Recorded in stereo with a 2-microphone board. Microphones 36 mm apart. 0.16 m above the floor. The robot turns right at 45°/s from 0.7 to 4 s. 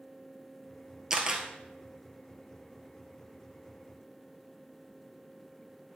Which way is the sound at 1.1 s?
15° right (ahead or behind).